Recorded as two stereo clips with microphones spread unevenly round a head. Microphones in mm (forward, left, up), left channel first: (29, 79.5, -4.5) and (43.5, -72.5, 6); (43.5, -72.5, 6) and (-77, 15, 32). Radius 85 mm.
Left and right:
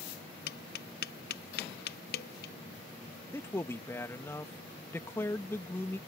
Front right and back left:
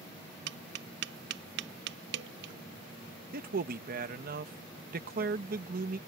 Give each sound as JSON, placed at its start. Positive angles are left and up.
{"t": 0.5, "sound": "tapping", "azimuth_deg": 125}
{"t": 3.3, "sound": "a man speaking", "azimuth_deg": 175}